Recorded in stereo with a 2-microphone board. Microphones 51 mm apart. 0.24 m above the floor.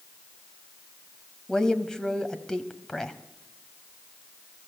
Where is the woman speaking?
10° left (ahead or behind), 1.1 m.